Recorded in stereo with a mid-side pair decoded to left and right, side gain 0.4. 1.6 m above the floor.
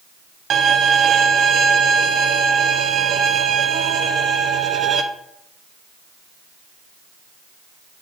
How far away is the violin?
About 0.7 m.